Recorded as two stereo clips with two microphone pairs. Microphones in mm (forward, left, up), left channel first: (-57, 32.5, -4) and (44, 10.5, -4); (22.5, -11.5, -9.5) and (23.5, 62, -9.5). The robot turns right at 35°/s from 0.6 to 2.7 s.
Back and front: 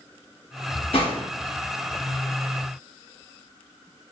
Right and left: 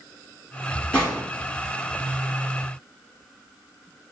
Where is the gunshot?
170° right, 1.4 m; by 1.2 s 160° right, 1.4 m.